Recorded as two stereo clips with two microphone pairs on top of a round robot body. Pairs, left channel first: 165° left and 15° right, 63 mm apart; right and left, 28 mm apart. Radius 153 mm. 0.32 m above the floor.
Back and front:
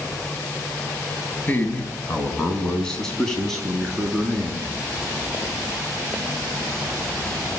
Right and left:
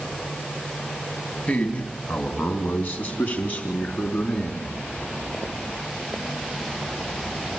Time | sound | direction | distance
1.5 | a man speaking | 135° right | 3 m